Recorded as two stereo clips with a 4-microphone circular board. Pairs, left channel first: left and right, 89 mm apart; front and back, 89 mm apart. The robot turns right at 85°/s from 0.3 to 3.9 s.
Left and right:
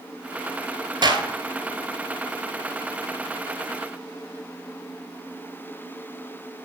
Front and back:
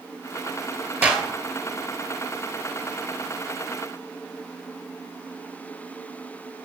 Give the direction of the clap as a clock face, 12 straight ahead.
4 o'clock.